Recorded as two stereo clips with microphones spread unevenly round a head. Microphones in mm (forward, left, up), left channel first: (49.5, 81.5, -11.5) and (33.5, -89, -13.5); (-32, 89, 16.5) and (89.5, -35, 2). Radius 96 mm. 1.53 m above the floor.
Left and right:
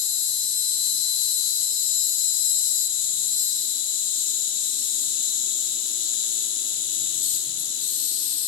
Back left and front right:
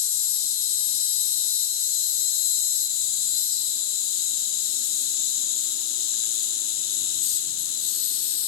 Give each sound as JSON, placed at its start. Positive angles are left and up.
{"t": 0.0, "sound": "an insect", "azimuth_deg": 135, "distance_m": 4.0}